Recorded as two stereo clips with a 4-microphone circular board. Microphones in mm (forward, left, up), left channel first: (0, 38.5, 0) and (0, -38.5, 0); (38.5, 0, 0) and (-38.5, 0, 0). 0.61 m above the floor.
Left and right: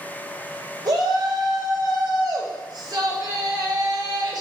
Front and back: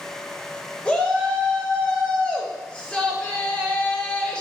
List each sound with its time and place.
0.8 s a shout: 75° right, 1.9 m